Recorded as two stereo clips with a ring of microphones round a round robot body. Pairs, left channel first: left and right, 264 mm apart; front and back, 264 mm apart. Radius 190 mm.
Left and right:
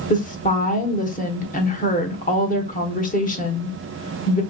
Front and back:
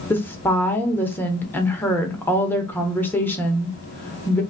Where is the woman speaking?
75° left, 0.9 m.